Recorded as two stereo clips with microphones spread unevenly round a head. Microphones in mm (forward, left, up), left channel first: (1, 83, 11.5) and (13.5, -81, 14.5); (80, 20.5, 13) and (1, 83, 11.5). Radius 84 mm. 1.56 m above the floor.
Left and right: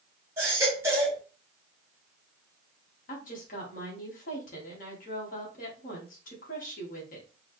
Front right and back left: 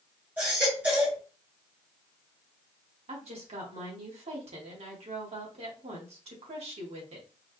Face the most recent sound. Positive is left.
turn(degrees=135)